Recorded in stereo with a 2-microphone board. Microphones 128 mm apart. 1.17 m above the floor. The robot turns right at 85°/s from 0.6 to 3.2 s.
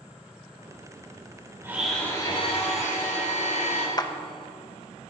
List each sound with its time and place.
1.6 s a blender: 20° right, 3 m; by 3.9 s 115° left, 3 m
4.0 s a clap: 30° left (ahead or behind), 0.6 m